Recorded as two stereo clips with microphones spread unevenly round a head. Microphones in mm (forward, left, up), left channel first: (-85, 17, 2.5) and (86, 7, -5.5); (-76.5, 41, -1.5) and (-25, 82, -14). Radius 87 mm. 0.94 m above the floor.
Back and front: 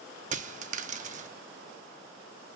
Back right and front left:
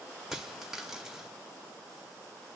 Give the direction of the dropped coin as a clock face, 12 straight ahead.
2 o'clock.